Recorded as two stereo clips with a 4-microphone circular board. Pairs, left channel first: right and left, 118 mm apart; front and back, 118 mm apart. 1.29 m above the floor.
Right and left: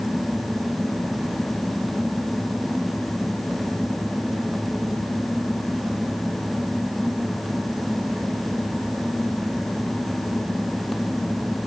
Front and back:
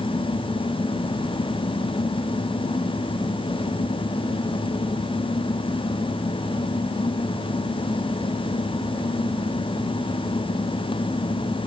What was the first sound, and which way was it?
Only background noise.